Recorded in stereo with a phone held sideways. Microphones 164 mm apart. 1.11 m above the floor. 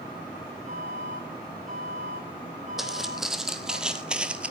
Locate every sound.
0.7 s an alarm: 45° right (ahead or behind), 9 m
2.8 s footsteps: centre (ahead or behind), 2.5 m; by 4.5 s 10° right (ahead or behind), 1.3 m